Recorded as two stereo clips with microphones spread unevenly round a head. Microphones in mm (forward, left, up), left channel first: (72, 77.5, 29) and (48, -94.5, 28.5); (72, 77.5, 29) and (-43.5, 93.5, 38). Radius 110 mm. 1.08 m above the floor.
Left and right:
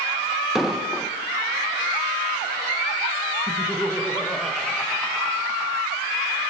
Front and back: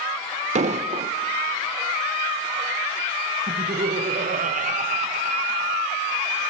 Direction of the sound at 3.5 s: 170° left.